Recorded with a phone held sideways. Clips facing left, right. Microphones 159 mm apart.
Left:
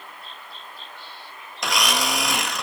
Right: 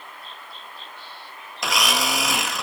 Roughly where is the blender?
Centre.